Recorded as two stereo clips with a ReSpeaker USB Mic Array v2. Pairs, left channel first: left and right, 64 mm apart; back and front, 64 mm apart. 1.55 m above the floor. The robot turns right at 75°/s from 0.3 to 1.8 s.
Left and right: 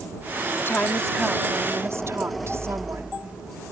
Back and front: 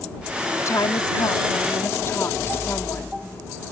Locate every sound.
0.6 s a woman speaking: 135° left; by 3.1 s 135° right